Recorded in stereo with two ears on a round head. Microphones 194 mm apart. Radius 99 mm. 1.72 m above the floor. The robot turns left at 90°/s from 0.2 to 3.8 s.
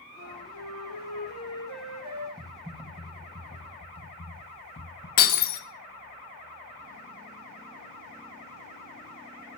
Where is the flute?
145° left, 6.5 m; by 2.3 s 40° right, 6.5 m.